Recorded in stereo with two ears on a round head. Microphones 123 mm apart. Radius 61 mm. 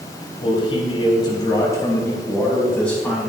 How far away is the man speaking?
About 3 m.